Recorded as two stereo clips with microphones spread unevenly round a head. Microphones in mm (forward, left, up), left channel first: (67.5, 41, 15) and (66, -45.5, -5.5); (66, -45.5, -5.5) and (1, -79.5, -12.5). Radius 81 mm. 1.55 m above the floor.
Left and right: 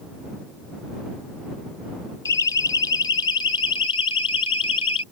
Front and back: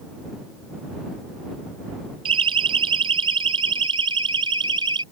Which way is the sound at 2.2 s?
160° left.